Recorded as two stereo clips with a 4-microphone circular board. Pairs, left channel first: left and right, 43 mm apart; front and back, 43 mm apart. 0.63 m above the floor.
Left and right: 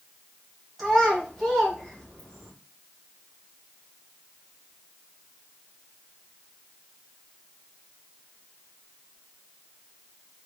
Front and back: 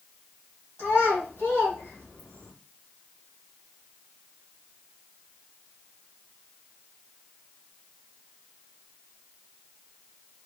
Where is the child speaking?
5° right, 1.8 m.